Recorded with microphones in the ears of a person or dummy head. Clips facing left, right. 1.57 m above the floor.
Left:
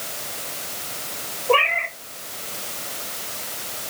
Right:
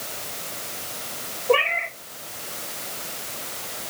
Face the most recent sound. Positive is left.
turn(degrees=0)  # may be behind; listen again after turning